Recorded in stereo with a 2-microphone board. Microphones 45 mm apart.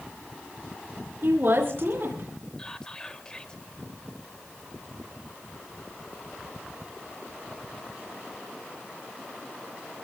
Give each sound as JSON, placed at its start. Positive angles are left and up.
{"t": 1.2, "sound": "a woman speaking", "side_deg": -55, "distance_m": 4.5}
{"t": 2.6, "sound": "whispering", "side_deg": 15, "distance_m": 1.4}